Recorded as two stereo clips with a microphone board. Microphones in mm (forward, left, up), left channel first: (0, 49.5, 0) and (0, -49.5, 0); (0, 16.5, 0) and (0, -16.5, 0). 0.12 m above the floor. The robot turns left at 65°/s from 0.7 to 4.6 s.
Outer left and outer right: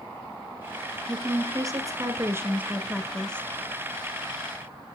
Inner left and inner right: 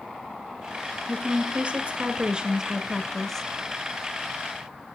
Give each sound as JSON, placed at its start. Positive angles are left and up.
{"t": 1.1, "sound": "a woman speaking", "azimuth_deg": -50, "distance_m": 1.2}